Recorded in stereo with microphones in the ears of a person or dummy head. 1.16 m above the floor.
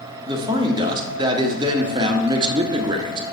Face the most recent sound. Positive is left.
turn(degrees=-25)  # may be behind; listen again after turning